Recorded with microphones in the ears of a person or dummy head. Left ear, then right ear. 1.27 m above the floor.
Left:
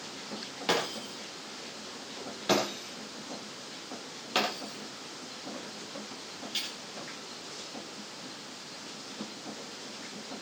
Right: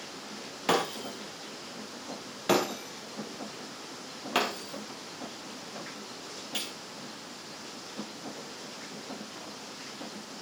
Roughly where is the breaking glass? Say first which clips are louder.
Right 2 dB; centre.